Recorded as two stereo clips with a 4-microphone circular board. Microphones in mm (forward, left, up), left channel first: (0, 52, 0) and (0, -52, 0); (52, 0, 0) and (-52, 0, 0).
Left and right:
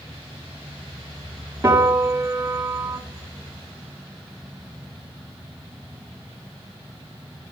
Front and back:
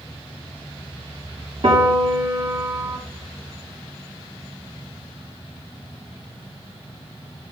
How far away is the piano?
About 1.4 m.